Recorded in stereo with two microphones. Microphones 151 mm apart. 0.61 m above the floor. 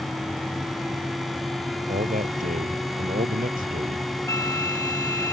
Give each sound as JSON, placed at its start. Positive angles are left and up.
{"t": 1.9, "sound": "a man speaking", "side_deg": -65}
{"t": 4.3, "sound": "a flute", "side_deg": 20}